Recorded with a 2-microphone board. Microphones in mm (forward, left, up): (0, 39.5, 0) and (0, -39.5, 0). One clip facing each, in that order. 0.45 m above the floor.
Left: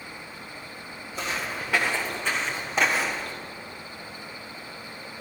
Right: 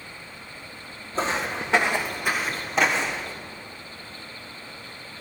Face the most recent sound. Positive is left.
turn(degrees=10)  # may be behind; listen again after turning